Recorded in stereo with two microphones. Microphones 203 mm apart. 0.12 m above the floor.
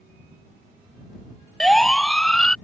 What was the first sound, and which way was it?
A siren, centre (ahead or behind).